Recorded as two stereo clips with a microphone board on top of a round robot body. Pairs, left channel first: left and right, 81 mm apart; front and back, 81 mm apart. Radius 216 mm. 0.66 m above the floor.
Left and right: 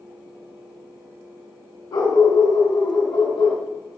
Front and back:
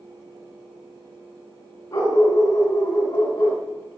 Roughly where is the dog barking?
Ahead left.